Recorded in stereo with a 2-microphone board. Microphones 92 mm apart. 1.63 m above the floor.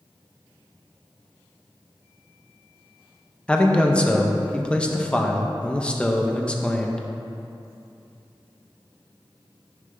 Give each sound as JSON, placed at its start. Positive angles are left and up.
{"t": 3.5, "sound": "a man speaking", "side_deg": 10, "distance_m": 0.6}